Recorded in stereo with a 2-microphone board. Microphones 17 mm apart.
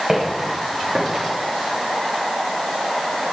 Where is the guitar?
I don't hear a guitar.